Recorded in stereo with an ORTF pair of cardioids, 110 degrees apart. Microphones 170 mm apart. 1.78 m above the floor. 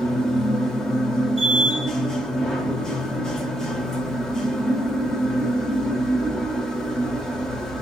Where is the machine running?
5° left, 1.1 m.